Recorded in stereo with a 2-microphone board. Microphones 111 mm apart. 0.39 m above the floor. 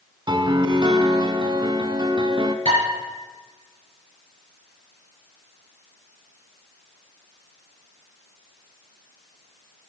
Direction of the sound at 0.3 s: 45° right (ahead or behind).